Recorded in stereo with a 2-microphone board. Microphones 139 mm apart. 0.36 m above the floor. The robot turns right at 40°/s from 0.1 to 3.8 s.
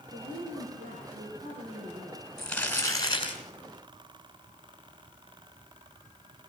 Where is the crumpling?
Straight ahead, 4.5 m; by 3.4 s 45° left, 4.5 m.